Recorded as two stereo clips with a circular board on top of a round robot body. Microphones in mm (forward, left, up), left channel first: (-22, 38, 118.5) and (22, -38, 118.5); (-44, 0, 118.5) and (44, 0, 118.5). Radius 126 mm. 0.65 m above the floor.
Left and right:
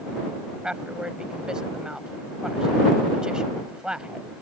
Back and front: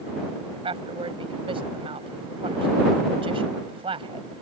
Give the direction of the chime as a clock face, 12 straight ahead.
I don't hear a chime.